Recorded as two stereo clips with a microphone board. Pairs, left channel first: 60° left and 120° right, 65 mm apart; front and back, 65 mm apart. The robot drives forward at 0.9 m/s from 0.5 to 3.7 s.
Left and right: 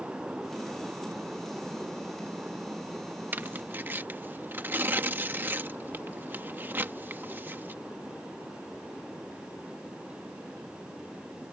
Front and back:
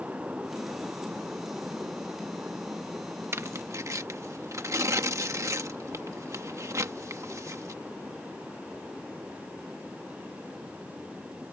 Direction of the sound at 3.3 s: 165° right.